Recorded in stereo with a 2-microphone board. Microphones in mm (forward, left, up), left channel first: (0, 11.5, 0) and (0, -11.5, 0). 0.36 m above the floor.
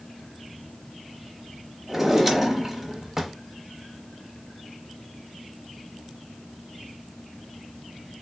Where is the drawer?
20° right (ahead or behind), 0.7 m.